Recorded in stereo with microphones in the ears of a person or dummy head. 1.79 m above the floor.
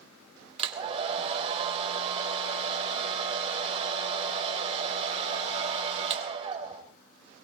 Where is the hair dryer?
30° right (ahead or behind), 3 m.